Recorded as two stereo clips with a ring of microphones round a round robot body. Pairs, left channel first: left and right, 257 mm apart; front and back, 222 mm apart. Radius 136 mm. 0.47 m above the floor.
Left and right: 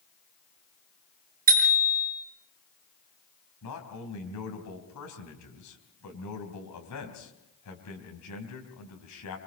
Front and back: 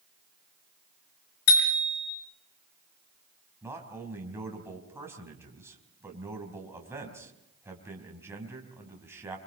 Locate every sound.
1.5 s a bicycle bell: 30° right, 5.5 m
3.6 s a man speaking: 100° left, 4 m